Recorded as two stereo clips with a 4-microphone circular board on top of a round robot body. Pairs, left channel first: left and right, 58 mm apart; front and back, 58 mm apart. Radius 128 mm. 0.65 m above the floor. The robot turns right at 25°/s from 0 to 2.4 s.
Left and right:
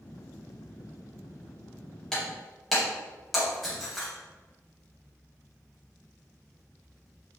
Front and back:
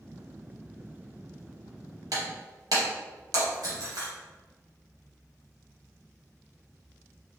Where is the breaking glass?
170° left, 2.5 m; by 4.1 s straight behind, 2.5 m.